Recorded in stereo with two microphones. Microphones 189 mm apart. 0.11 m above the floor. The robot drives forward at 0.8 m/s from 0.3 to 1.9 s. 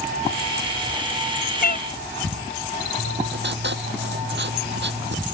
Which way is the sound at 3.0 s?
75° right (ahead or behind).